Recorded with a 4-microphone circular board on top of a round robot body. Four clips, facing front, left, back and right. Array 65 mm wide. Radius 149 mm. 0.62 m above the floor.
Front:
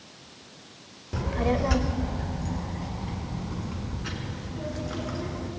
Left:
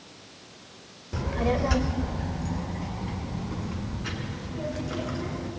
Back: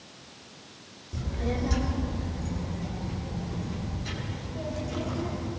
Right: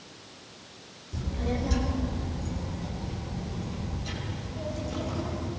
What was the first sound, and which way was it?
A child speaking, 35° left.